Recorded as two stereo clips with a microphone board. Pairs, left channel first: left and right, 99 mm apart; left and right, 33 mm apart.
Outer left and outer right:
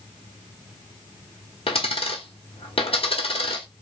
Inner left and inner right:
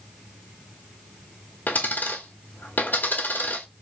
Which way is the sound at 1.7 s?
75° left (ahead or behind).